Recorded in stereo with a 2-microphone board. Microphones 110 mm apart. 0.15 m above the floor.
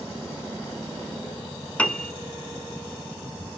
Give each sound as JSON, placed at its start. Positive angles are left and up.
{"t": 1.8, "sound": "a piano", "side_deg": 15, "distance_m": 0.7}